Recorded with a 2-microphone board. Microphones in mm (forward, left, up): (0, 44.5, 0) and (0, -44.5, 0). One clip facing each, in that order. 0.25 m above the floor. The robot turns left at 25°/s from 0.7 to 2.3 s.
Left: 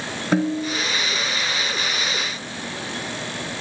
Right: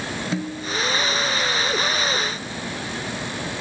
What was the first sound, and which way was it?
A snare drum, 60° left (ahead or behind).